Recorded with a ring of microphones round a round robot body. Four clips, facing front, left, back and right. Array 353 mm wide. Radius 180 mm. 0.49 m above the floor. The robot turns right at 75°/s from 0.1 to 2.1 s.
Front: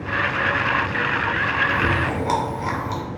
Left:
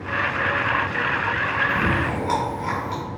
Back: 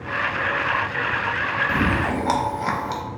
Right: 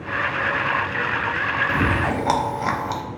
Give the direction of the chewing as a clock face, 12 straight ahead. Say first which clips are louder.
Right 1 dB, even; 5 o'clock.